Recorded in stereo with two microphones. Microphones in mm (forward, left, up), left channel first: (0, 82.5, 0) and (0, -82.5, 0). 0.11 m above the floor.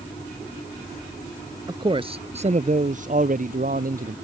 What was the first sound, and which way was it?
A man speaking, 25° right (ahead or behind).